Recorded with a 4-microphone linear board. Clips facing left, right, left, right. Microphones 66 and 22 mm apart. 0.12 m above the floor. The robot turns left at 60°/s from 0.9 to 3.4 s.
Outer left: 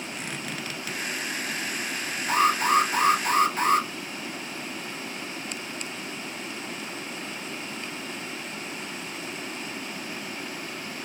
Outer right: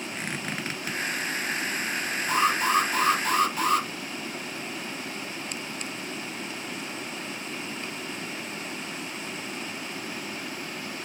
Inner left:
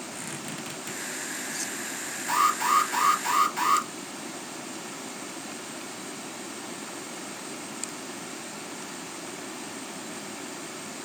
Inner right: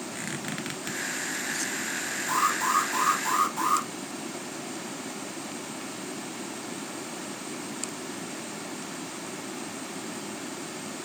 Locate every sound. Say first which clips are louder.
0.1 s a squeak: outer right 3 dB, inner right 4 dB; 40° right (ahead or behind), 1.3 m; by 1.0 s 35° right (ahead or behind), 1.3 m
2.3 s an alarm: outer left 2 dB, inner left 3 dB; 135° left, 2.5 m; by 3.9 s 65° left, 2.5 m